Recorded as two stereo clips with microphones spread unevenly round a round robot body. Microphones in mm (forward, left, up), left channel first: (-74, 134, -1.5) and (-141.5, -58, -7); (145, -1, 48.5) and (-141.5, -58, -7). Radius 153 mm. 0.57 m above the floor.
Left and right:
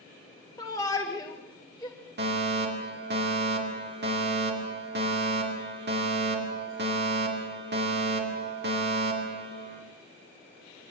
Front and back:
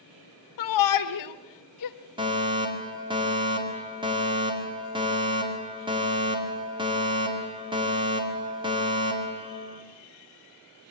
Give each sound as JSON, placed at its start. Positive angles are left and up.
{"t": 0.6, "sound": "a shout", "azimuth_deg": -10, "distance_m": 1.6}
{"t": 2.2, "sound": "a fire alarm", "azimuth_deg": -110, "distance_m": 3.0}